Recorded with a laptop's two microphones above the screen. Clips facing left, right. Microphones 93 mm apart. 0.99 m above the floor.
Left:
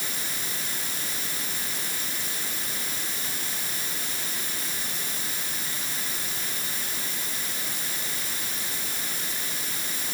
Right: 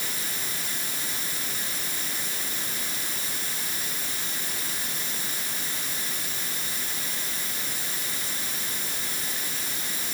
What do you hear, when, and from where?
Only background noise.